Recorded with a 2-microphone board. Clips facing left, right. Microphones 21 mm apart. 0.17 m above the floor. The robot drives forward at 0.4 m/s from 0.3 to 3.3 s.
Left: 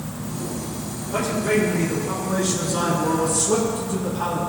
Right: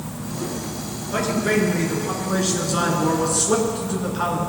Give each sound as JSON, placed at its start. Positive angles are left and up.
{"t": 1.1, "sound": "a man speaking", "side_deg": -35, "distance_m": 2.5}